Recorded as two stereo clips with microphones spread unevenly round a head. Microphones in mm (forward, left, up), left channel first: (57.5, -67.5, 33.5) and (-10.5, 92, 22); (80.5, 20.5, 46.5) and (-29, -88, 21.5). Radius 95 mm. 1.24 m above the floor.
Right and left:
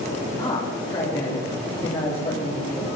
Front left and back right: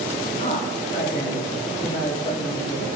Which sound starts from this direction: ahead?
A man speaking, at 0.4 s.